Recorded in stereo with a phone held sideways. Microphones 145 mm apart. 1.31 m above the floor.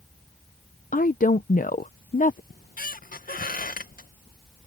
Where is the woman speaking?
65° left (ahead or behind).